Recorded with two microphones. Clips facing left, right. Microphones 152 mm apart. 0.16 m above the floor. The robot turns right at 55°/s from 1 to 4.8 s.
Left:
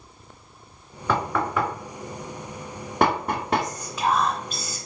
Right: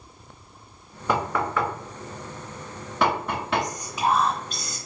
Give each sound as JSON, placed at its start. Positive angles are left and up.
{"t": 1.1, "sound": "knocking", "side_deg": -15, "distance_m": 1.2}
{"t": 3.6, "sound": "whispering", "side_deg": -20, "distance_m": 1.2}